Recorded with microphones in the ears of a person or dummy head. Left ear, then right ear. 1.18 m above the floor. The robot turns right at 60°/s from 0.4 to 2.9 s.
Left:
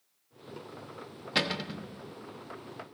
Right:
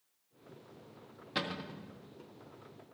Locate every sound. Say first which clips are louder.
1.4 s a cupboard door: left 8 dB; 20° left, 0.6 m; by 1.9 s 50° left, 0.6 m